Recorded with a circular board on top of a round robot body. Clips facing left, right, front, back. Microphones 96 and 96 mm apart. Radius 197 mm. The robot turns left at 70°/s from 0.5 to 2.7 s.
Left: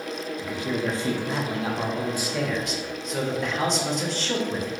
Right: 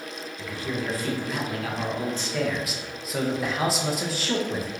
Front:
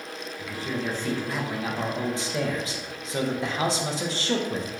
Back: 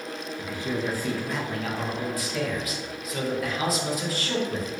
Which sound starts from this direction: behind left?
A man speaking, at 0.4 s.